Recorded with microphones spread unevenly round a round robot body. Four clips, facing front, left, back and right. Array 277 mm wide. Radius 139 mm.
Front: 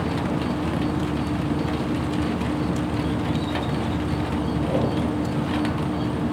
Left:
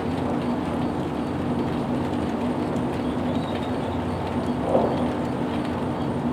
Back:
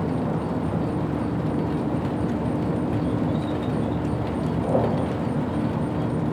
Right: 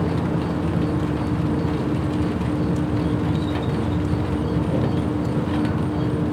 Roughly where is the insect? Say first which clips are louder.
Right 2 dB, front 1 dB; right.